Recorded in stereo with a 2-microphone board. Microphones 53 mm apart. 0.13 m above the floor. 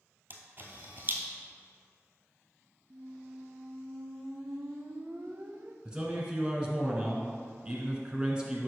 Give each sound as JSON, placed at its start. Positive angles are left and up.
{"t": 0.3, "sound": "a camera shutter", "side_deg": -40, "distance_m": 1.2}
{"t": 2.9, "sound": "a squeak", "side_deg": -55, "distance_m": 0.5}
{"t": 5.8, "sound": "a man speaking", "side_deg": -15, "distance_m": 1.2}